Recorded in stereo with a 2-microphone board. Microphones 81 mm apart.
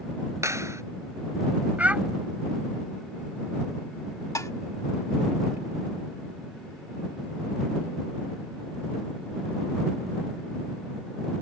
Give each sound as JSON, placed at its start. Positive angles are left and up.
{"t": 0.4, "sound": "a clap", "side_deg": -40}
{"t": 1.8, "sound": "a child speaking", "side_deg": -20}
{"t": 4.3, "sound": "dishes clattering", "side_deg": 45}